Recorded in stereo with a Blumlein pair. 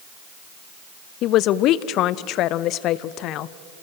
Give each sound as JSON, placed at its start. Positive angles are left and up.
{"t": 1.2, "sound": "a man speaking", "azimuth_deg": 35, "distance_m": 0.7}